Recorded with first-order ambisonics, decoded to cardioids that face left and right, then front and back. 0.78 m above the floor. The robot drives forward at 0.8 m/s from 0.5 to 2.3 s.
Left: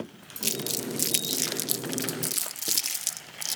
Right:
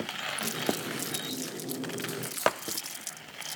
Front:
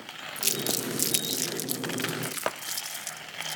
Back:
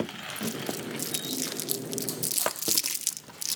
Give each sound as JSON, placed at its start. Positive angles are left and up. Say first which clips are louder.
{"t": 0.4, "sound": "crumpling", "louder": "left 5 dB, front 6 dB", "azimuth_deg": 35}